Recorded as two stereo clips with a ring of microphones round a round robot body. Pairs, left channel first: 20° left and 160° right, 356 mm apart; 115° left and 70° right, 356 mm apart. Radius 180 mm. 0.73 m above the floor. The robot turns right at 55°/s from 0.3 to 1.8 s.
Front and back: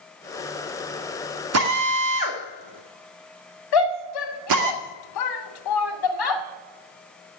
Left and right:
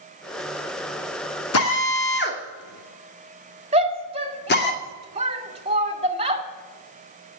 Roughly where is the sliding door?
I don't hear a sliding door.